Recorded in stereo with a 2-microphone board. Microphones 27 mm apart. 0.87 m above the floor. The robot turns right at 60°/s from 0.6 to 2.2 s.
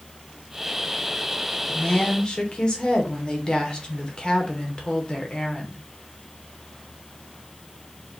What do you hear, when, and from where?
1.7 s a woman speaking: 100° left, 1.0 m; by 5.8 s 130° left, 1.0 m